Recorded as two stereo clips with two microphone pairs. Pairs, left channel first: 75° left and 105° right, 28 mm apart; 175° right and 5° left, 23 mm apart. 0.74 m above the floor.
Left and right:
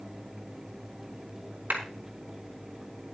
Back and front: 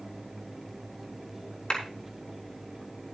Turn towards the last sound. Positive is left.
turn(degrees=-115)